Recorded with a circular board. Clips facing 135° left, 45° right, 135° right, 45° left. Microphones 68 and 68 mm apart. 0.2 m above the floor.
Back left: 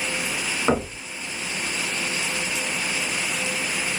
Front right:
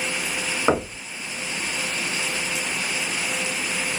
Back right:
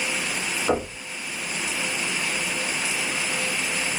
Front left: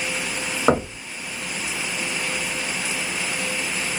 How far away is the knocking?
About 1.1 m.